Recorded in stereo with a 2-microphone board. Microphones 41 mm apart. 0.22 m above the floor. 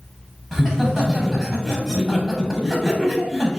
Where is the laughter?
15° right (ahead or behind), 0.9 m.